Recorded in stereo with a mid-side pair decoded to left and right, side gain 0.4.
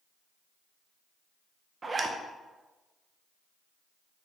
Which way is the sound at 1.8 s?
35° right.